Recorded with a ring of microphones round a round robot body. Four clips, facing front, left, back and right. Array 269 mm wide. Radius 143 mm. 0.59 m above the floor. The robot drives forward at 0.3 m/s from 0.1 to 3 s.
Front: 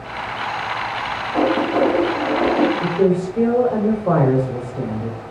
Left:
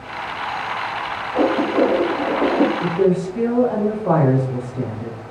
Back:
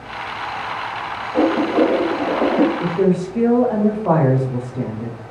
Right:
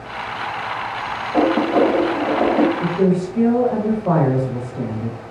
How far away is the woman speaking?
About 1.4 m.